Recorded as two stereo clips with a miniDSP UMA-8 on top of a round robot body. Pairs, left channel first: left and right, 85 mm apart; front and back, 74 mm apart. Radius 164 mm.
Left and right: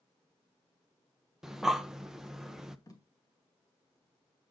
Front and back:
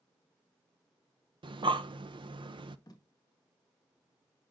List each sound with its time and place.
1.4 s breathing: 175° right, 0.7 m
2.9 s tape being pulled: 40° left, 1.9 m